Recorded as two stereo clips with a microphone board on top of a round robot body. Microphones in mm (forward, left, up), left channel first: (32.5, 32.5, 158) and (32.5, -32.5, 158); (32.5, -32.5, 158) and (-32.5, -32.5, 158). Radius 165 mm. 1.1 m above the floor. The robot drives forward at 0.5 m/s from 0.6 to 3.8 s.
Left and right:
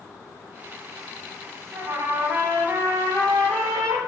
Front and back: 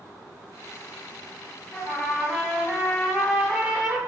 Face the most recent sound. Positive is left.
turn(degrees=-105)